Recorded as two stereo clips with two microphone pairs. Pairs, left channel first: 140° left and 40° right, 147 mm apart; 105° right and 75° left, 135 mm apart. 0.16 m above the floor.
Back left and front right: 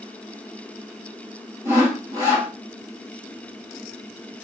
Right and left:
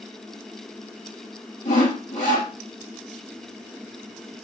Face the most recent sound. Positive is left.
turn(degrees=-110)